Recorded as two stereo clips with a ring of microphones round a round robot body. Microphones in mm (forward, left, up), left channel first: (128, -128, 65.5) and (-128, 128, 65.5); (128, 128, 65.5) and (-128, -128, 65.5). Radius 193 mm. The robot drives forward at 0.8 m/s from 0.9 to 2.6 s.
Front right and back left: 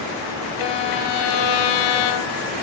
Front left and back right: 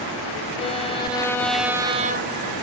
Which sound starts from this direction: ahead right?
A violin, at 0.6 s.